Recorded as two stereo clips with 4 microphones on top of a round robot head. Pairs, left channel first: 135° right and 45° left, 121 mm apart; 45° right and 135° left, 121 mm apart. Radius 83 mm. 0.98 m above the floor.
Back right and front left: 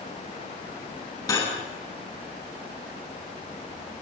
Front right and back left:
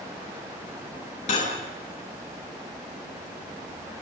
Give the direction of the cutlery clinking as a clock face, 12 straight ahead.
2 o'clock.